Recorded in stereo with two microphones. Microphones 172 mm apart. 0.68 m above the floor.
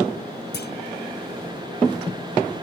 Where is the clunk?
75° left (ahead or behind).